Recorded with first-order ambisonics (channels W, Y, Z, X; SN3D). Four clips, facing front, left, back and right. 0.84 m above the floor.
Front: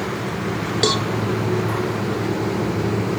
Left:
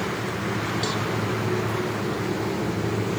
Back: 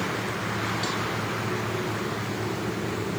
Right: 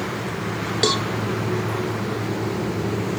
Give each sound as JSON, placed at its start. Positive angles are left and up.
{"t": 0.8, "sound": "a cowbell", "azimuth_deg": -35}